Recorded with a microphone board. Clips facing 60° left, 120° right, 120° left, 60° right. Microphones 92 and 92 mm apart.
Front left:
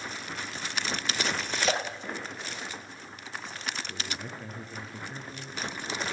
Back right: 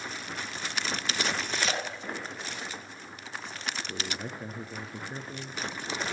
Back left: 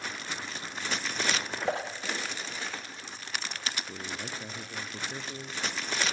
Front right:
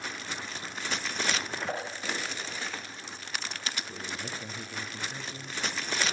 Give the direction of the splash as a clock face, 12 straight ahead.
8 o'clock.